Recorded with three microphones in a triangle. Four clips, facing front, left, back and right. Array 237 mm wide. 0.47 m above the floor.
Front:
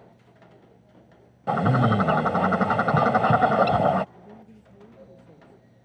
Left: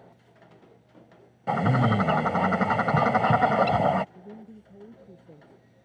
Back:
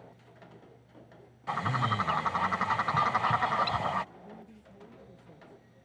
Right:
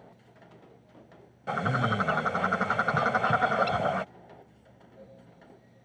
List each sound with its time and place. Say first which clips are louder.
1.5 s a bird: left 5 dB, front 9 dB; 25° left
4.2 s a woman speaking: left 7 dB, front 2 dB; 75° left